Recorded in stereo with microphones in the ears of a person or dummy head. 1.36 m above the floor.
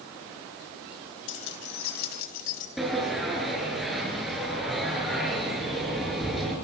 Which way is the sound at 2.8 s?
5° right (ahead or behind).